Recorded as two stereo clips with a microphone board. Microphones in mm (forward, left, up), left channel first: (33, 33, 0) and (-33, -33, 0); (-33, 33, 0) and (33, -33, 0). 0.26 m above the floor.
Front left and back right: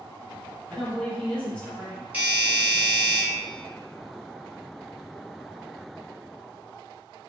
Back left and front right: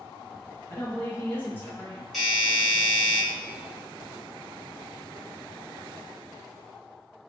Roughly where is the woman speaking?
Left.